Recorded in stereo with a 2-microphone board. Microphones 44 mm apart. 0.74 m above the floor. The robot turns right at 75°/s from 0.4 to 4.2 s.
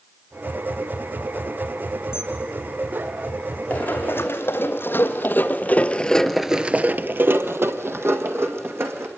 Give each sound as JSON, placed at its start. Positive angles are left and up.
{"t": 2.1, "sound": "a camera shutter", "side_deg": 80, "distance_m": 3.5}
{"t": 3.7, "sound": "running footsteps", "side_deg": 30, "distance_m": 3.0}